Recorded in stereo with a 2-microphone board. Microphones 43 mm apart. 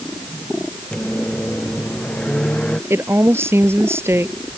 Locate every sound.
0.9 s a microwave: 25° left (ahead or behind)
2.9 s a woman speaking: 70° right (ahead or behind)